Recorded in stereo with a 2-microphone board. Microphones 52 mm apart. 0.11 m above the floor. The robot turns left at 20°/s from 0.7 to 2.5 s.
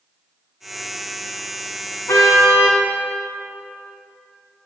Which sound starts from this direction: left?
A car horn, at 2.1 s.